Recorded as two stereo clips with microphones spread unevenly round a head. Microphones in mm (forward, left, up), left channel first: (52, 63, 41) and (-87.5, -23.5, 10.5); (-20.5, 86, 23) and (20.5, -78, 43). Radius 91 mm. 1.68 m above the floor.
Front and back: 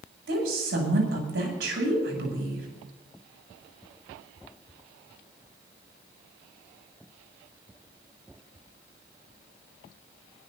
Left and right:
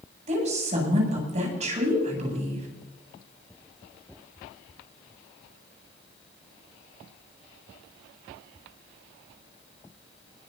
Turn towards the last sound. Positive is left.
turn(degrees=-130)